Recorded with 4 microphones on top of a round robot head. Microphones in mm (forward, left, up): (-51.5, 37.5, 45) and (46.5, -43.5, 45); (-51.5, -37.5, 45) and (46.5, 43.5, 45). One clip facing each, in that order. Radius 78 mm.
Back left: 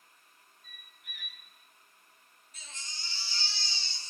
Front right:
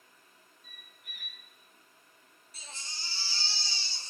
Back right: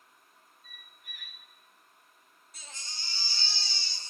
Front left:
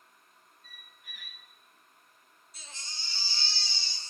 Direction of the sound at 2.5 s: 95° right.